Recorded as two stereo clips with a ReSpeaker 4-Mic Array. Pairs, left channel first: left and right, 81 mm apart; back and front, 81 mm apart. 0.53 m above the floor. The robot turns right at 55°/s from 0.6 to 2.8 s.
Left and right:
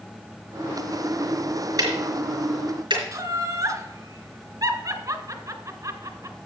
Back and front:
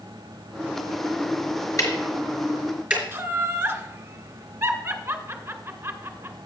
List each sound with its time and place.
1.8 s ticking: 135° right, 4 m; by 3.0 s 80° right, 4 m
3.1 s laughter: 60° right, 1.9 m